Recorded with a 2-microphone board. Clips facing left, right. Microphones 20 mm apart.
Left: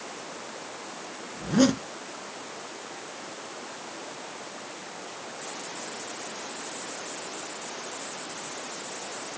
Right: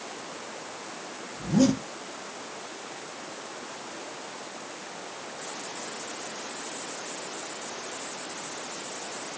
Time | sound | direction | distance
1.4 | a zipper | 45° left (ahead or behind) | 2.5 m